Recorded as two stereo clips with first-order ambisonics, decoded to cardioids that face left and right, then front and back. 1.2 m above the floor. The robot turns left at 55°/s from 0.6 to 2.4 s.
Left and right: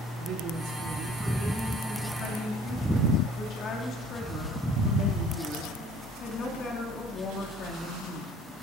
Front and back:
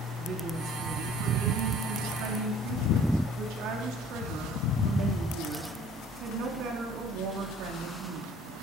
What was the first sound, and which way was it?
A woman speaking, 115° right.